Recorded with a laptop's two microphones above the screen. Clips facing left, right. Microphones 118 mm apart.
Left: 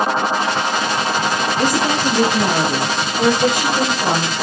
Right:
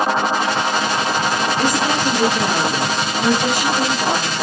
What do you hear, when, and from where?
1.6 s a woman speaking: 40° left (ahead or behind), 0.8 m; by 4.3 s 50° left (ahead or behind), 1.8 m